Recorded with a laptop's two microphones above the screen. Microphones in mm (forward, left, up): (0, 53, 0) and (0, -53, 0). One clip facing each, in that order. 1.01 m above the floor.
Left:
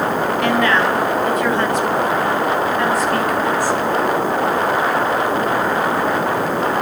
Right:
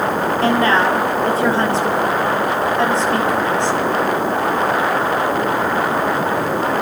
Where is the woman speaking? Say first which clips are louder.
Right 2 dB; 35° right (ahead or behind), 5.5 m; by 3.8 s 25° right (ahead or behind), 4 m.